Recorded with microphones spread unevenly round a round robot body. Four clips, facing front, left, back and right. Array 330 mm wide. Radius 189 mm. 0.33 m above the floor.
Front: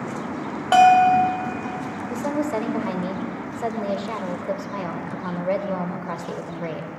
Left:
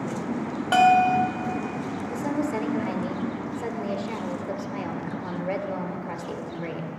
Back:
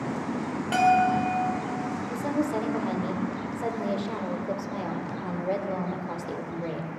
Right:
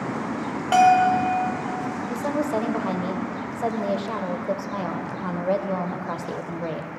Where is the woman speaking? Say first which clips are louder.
Right 2 dB, front 4 dB; 45° right, 1.1 m.